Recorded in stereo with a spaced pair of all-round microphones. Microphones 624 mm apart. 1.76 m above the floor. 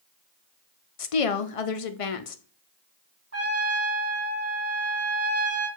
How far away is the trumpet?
About 1.0 m.